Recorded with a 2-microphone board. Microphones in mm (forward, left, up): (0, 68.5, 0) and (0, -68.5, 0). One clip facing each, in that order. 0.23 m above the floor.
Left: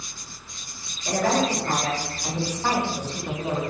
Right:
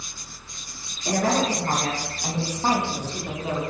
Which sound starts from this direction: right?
A woman speaking, at 1.1 s.